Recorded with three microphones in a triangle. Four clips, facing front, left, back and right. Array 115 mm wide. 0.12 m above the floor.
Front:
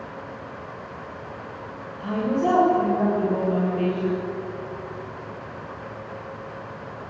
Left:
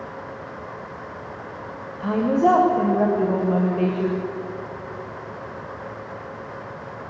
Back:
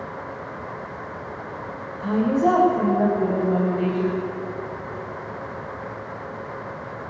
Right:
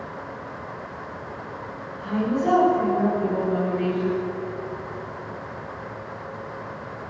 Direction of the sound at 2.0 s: 105° left.